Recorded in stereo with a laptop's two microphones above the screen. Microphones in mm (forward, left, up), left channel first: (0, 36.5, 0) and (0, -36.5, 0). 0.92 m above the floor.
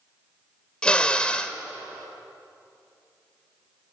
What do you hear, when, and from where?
0.8 s a drill: 15° left (ahead or behind), 1.1 m